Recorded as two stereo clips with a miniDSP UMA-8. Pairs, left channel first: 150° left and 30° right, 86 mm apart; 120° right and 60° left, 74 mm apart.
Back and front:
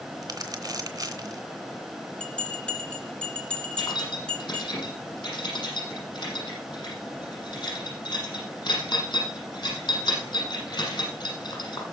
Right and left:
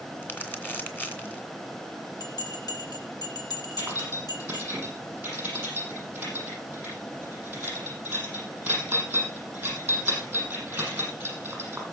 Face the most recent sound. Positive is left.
turn(degrees=130)